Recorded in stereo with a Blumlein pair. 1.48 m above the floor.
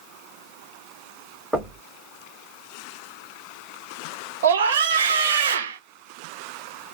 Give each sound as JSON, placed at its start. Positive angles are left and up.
{"t": 1.5, "sound": "knocking", "azimuth_deg": -5, "distance_m": 1.1}
{"t": 4.4, "sound": "a scream", "azimuth_deg": -60, "distance_m": 1.0}